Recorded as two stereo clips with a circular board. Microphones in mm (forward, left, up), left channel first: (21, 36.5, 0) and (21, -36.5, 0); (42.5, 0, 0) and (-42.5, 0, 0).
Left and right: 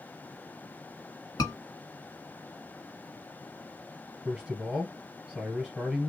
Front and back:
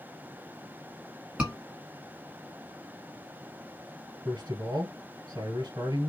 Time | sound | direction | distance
1.4 | a scream | 105° left | 2.5 m
4.2 | a man speaking | 175° left | 1.5 m